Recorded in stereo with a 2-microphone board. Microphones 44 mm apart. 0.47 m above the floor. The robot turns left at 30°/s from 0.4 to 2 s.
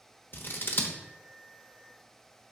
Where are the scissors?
50° left (ahead or behind), 1.0 m.